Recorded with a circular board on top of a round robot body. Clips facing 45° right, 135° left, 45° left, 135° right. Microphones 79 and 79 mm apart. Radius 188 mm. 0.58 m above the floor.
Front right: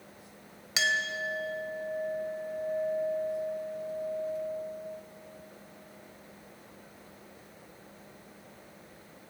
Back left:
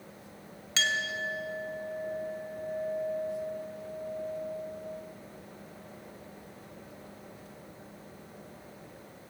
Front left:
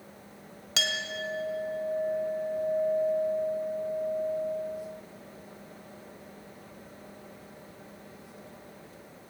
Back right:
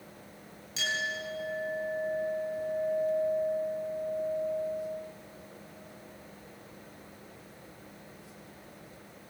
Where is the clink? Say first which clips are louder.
Front right 1 dB, even; 30° left, 2.0 m.